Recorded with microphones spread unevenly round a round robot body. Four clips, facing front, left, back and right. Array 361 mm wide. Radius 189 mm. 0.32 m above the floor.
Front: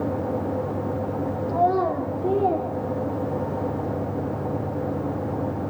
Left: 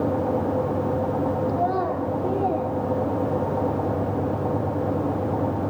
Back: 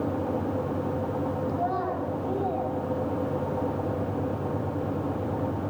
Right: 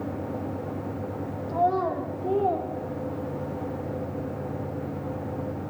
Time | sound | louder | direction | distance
1.5 | a child speaking | left 1 dB, front 7 dB | 10° left | 8 m